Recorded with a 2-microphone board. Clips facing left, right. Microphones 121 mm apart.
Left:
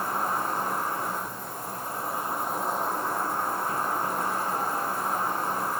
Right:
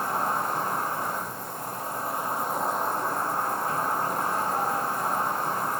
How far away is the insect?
About 2 m.